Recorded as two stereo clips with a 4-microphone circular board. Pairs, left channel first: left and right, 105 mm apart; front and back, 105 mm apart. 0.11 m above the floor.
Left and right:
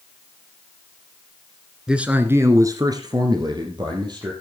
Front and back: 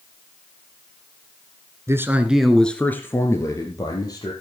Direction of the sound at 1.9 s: 165° right.